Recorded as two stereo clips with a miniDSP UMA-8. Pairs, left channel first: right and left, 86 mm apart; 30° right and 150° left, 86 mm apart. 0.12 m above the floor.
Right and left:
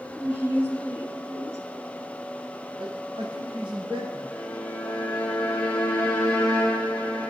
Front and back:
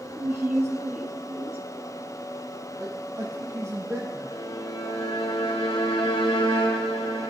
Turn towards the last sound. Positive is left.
turn(degrees=-20)